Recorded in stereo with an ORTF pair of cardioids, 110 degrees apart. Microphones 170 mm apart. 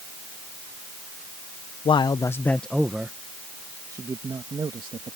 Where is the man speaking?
30° left; by 5.2 s 30° right.